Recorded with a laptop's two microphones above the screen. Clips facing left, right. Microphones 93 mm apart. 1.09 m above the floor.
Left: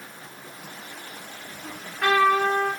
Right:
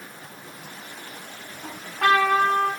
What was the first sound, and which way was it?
A trumpet, 65° right (ahead or behind).